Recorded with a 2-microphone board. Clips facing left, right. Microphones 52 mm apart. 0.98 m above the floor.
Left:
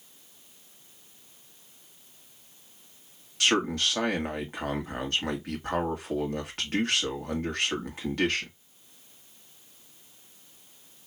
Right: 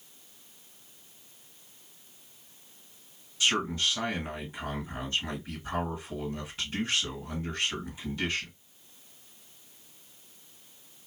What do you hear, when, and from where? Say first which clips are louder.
3.4 s a man speaking: left 3 dB; 65° left (ahead or behind), 1.7 m